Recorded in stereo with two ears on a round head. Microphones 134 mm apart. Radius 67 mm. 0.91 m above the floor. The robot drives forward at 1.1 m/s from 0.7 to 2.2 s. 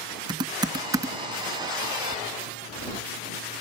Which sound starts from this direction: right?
Typing on a keyboard, at 0.3 s.